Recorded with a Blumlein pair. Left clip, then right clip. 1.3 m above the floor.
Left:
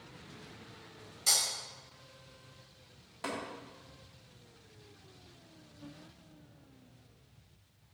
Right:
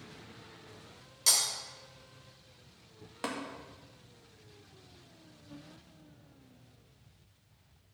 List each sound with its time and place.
1.3 s breaking glass: 55° right, 3.5 m
3.2 s tapping: 65° right, 2.0 m